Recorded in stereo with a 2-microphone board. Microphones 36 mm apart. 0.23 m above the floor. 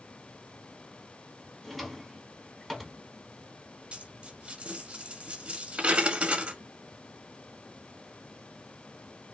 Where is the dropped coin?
35° right (ahead or behind), 1.1 m.